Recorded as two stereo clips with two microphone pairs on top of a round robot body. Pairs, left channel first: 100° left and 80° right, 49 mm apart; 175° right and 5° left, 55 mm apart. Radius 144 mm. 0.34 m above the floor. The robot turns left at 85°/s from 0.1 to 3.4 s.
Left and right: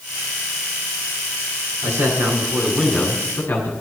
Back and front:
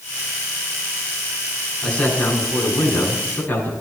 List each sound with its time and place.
1.8 s a man speaking: 90° right, 6.5 m; by 3.7 s 135° left, 6.5 m